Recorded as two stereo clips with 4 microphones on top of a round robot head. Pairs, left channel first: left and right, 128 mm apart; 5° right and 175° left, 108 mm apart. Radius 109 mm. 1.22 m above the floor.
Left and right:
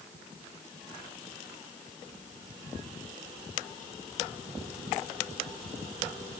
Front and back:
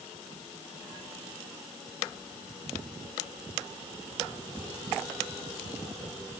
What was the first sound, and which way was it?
Only background noise.